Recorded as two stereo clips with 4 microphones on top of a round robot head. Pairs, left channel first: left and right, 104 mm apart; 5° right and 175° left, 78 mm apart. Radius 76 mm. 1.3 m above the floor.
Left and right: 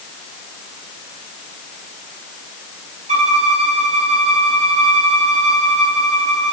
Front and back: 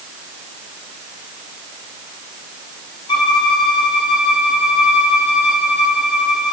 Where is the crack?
No crack in this recording.